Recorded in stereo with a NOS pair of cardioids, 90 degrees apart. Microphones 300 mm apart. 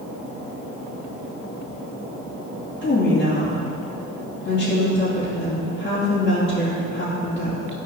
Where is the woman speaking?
35° left, 2.5 m.